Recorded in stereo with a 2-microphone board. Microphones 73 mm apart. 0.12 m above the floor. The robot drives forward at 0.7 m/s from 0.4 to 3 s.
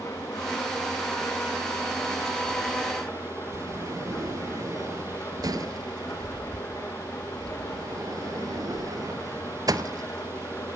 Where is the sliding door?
55° right (ahead or behind), 1.0 m.